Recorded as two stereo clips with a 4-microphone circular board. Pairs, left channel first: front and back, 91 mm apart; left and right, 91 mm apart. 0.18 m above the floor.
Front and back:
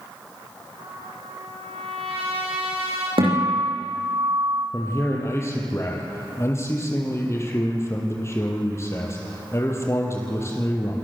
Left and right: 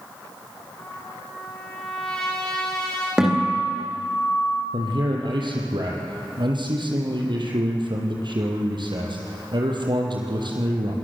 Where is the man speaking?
60° right, 5.5 m.